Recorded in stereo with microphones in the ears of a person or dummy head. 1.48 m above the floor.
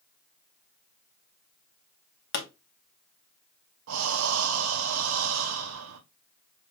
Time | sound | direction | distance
2.3 | a pop | 60° left (ahead or behind) | 1.0 m
3.9 | breathing | 75° right (ahead or behind) | 0.7 m